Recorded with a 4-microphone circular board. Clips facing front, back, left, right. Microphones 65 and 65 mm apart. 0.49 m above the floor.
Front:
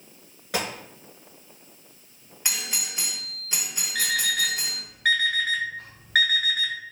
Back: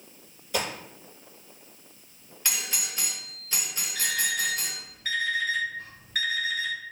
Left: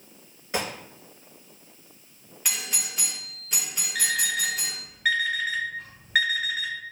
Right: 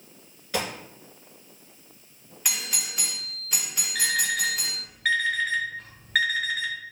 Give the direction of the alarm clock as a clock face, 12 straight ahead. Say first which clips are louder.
Front 3 dB, right 1 dB; 12 o'clock.